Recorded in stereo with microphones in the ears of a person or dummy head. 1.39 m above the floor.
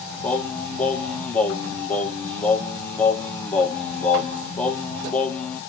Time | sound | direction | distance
0.2 | singing | 5° left (ahead or behind) | 0.6 m